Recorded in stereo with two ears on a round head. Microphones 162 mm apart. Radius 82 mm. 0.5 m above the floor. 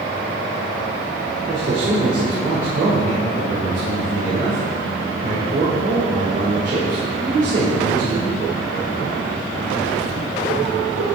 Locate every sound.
1.5 s a man speaking: 45° right (ahead or behind), 1.7 m